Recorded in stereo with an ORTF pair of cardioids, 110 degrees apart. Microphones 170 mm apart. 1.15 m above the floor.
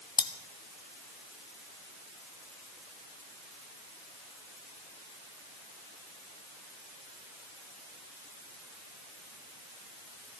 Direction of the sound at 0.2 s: 30° left.